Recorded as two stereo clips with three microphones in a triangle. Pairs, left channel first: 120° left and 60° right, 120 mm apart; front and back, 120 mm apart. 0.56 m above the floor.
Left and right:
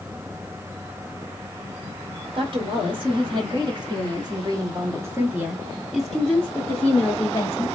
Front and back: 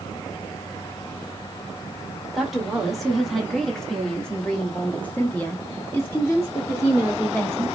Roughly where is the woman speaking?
Right.